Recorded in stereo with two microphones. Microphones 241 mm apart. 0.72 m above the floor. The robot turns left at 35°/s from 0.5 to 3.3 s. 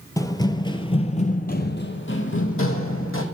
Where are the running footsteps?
15° left (ahead or behind), 0.7 m; by 3.2 s 60° left (ahead or behind), 1.8 m.